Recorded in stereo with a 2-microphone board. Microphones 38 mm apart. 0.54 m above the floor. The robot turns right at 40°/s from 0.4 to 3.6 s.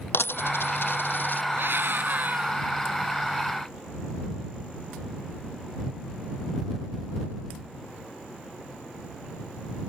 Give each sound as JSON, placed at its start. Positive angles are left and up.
{"t": 0.1, "sound": "a dropped coin", "side_deg": 85}
{"t": 1.5, "sound": "a scream", "azimuth_deg": -80}